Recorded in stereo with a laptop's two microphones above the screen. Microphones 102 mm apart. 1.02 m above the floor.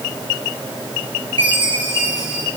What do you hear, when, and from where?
1.4 s a chime: 55° right (ahead or behind), 5 m